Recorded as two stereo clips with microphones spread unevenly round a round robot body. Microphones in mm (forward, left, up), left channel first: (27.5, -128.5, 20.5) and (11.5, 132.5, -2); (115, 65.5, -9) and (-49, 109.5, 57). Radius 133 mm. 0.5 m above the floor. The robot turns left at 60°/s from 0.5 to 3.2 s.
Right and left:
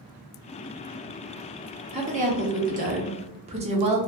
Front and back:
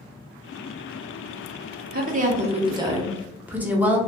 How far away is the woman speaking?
About 0.7 m.